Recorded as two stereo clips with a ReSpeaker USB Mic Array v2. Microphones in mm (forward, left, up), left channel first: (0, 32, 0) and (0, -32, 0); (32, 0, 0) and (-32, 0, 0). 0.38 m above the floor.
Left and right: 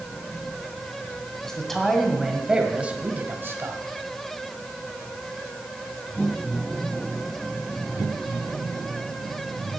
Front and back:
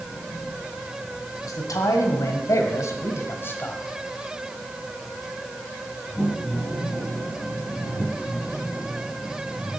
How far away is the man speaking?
About 2 m.